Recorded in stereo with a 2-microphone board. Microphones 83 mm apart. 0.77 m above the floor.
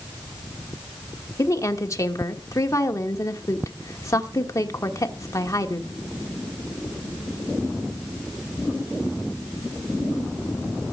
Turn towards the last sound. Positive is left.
turn(degrees=40)  # may be behind; listen again after turning